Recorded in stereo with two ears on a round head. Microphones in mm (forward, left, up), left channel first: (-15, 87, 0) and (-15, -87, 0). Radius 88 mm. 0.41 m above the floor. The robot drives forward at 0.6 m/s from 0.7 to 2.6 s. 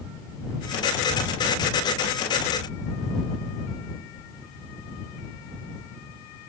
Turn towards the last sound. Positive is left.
No sound to turn to.